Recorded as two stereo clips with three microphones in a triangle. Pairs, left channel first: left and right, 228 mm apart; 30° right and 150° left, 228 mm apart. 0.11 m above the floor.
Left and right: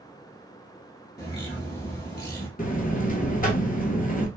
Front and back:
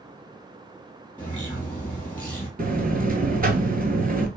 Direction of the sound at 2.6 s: 120° left.